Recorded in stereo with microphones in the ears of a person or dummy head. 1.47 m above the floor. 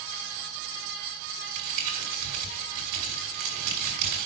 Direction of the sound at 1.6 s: 50° right (ahead or behind).